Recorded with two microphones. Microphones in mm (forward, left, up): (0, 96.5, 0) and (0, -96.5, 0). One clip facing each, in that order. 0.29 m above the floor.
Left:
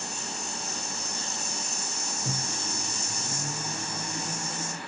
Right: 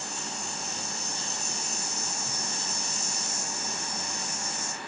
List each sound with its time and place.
2.2 s a microwave: 55° left (ahead or behind)